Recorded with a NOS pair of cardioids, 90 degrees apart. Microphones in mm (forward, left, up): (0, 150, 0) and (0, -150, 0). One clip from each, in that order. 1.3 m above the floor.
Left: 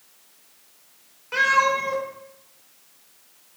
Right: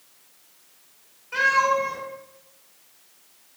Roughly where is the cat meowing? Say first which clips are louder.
Left 1 dB; ahead left.